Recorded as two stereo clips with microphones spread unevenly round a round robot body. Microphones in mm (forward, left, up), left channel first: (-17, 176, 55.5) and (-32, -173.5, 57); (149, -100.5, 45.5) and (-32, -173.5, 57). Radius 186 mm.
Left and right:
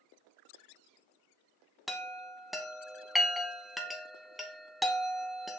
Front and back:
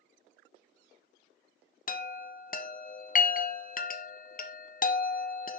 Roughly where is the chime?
Ahead.